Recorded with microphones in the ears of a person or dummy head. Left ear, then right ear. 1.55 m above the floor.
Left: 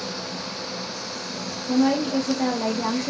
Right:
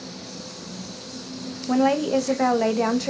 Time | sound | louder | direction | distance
1.7 | a woman speaking | right 2 dB | 75° right (ahead or behind) | 0.6 m